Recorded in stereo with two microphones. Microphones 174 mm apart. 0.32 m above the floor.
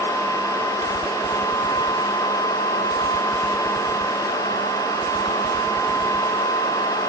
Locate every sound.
Only background noise.